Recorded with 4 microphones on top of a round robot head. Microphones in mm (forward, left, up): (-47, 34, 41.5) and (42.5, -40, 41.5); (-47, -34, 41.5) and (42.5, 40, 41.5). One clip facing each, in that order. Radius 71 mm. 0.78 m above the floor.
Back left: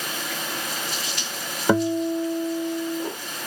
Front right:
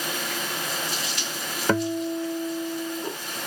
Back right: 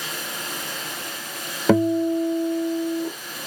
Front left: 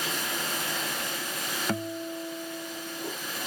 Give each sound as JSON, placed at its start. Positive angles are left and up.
{"t": 1.7, "sound": "a guitar", "azimuth_deg": -140}